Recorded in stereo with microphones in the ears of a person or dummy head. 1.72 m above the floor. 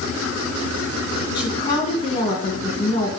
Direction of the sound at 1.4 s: 30° left (ahead or behind).